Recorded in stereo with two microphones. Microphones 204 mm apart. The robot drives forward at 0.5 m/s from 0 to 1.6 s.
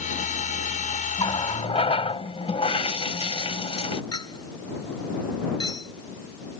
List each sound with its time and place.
1.2 s a running tap: 25° left (ahead or behind); by 4.0 s 30° left (ahead or behind)
4.1 s a clink: 20° left (ahead or behind)